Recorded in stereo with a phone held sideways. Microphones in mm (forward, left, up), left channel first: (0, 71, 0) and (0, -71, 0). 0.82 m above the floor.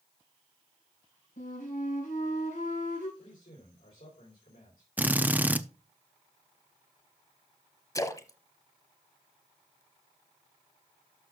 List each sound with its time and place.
1.4 s a flute: 75° left (ahead or behind), 6 m
3.2 s a man speaking: 65° left (ahead or behind), 3.5 m
5.0 s a drill: 10° right (ahead or behind), 0.5 m
8.0 s a splash: 25° left (ahead or behind), 0.8 m